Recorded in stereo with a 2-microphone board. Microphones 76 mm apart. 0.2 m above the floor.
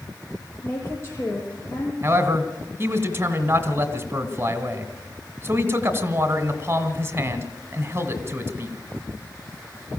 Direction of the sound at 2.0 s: 30° right (ahead or behind).